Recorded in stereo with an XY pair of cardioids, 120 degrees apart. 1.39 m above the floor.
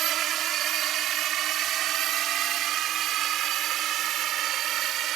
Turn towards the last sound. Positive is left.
turn(degrees=-65)